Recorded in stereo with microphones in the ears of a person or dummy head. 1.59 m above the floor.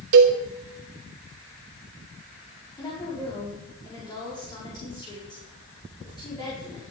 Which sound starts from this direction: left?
A woman speaking, at 2.8 s.